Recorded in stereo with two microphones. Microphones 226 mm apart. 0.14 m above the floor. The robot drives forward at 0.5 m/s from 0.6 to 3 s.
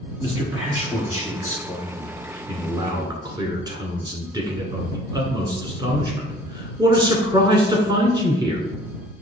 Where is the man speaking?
10° right (ahead or behind), 2.5 m; by 8.6 s 20° right (ahead or behind), 1.6 m.